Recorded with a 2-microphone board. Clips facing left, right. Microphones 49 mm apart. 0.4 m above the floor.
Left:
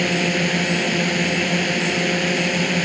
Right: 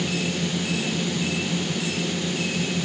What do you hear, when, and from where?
0.0 s a drone: 70° left (ahead or behind)